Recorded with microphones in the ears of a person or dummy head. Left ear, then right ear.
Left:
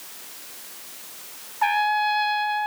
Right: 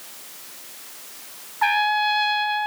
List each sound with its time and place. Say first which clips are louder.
1.6 s a trumpet: right 1 dB; 10° right (ahead or behind)